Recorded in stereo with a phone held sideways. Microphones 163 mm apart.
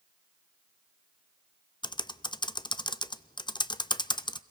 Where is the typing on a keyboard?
30° left (ahead or behind), 0.5 m.